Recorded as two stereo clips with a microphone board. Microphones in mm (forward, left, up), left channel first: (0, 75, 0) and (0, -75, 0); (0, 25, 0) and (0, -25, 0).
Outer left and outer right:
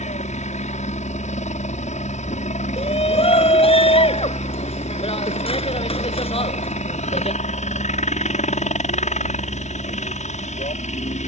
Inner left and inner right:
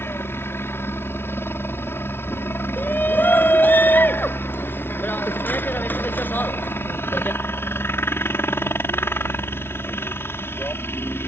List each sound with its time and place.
0.0 s a helicopter: 50° left (ahead or behind)
2.8 s a shout: 40° left (ahead or behind)